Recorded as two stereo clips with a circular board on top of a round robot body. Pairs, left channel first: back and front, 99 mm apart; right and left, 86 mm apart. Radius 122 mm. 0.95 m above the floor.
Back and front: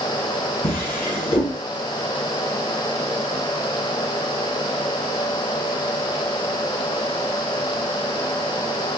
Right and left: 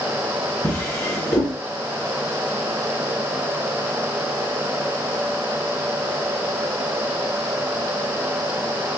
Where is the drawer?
155° right, 1.1 m.